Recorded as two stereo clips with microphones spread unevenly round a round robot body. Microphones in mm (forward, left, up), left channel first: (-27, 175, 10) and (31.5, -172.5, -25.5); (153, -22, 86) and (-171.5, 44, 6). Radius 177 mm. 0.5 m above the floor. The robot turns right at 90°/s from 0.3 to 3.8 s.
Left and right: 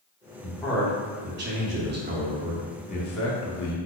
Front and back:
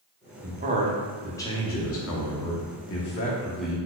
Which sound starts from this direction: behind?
A man speaking, at 0.4 s.